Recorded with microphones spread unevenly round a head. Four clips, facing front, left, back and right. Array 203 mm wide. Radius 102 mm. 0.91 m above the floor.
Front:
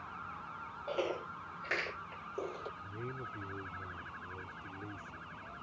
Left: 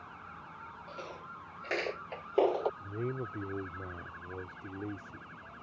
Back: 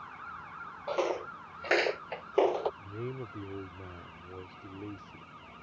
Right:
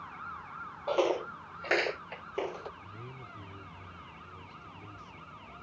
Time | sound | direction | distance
0.9 | footsteps | 105° right | ?
2.8 | a man speaking | 115° left | ?